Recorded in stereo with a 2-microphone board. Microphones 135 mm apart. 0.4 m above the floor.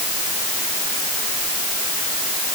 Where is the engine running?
No engine running in this recording.